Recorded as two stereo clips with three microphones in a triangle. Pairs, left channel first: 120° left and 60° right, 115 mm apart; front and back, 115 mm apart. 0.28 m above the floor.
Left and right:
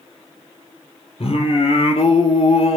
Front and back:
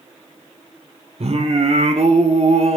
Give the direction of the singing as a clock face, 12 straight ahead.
7 o'clock.